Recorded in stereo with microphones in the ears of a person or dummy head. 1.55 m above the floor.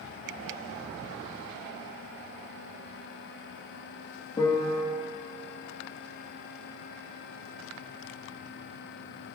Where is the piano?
25° left (ahead or behind), 0.6 m.